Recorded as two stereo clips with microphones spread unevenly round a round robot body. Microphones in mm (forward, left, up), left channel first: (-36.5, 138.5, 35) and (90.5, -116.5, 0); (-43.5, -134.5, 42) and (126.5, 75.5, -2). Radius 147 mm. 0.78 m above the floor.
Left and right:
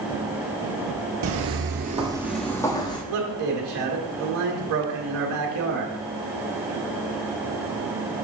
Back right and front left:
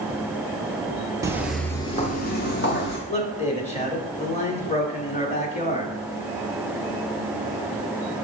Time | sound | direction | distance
1.2 | footsteps | 35° right | 1.0 m
3.1 | a man speaking | 60° right | 1.6 m